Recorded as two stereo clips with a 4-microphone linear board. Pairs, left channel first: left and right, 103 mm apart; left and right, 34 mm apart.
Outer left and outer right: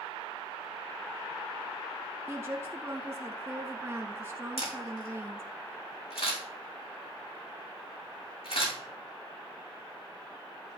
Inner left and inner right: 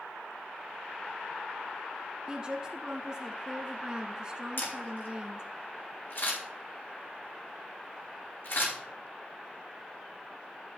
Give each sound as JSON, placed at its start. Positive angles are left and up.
{"t": 2.3, "sound": "a woman speaking", "side_deg": -25, "distance_m": 1.2}
{"t": 4.6, "sound": "a camera shutter", "side_deg": 75, "distance_m": 5.5}